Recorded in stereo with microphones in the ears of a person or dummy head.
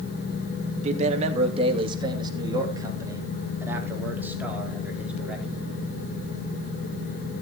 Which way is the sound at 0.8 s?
50° right (ahead or behind).